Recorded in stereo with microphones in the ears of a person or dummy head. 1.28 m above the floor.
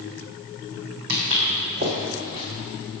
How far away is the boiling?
No boiling in this recording.